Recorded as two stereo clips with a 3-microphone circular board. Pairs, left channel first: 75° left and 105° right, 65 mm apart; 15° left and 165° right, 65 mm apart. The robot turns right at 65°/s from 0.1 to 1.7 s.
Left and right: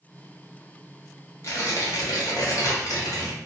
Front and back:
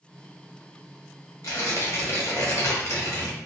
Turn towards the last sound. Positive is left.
turn(degrees=55)